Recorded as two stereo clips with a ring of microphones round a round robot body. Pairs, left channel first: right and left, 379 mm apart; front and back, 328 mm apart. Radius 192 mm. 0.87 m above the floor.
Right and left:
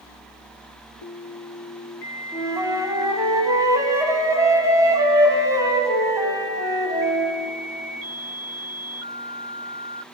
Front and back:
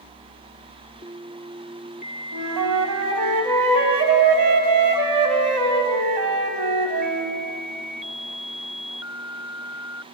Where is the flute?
170° left, 1.2 m.